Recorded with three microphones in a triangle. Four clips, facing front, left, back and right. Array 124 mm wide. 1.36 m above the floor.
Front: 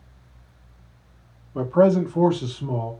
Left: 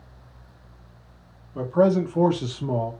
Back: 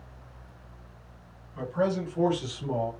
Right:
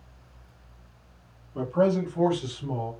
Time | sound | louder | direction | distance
1.6 | a man speaking | left 4 dB, front 10 dB | 5° left | 1.1 m